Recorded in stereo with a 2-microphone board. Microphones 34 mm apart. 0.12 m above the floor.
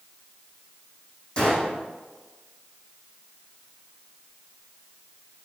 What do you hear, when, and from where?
1.4 s a gunshot: 30° left (ahead or behind), 2.5 m